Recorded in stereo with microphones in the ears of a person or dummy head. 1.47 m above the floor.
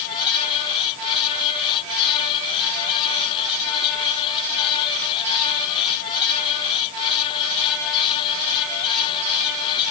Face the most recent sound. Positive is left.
No sound to turn to.